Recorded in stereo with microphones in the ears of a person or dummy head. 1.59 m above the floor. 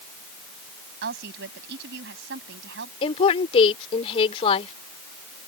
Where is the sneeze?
I don't hear a sneeze.